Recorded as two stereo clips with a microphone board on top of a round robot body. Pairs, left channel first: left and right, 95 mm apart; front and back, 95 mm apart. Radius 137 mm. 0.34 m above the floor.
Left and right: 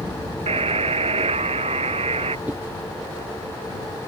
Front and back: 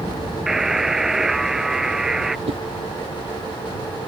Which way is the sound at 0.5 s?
95° right.